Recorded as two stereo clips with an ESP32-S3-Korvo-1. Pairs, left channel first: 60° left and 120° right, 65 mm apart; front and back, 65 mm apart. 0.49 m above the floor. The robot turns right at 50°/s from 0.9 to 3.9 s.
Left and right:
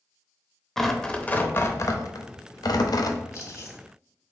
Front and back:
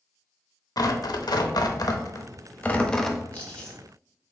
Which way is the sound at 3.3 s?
50° left.